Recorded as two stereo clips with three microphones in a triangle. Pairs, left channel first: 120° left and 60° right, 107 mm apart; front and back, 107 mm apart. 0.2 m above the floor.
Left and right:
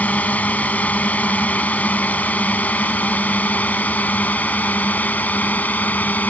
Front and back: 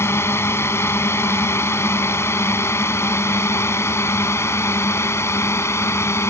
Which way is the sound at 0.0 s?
50° left.